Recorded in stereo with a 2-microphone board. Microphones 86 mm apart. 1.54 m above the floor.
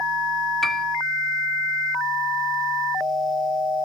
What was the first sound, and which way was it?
A piano, 5° left (ahead or behind).